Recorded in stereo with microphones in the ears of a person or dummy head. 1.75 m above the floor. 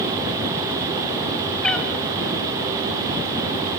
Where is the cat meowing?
5° left (ahead or behind), 1.2 m.